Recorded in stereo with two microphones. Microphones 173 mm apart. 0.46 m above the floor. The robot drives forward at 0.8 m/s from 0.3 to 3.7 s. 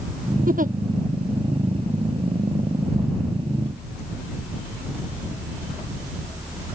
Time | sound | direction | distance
0.5 | a giggle | 55° right (ahead or behind) | ?